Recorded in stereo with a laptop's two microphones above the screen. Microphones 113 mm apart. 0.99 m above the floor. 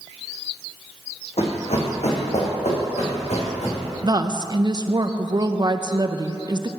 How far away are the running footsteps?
About 3 m.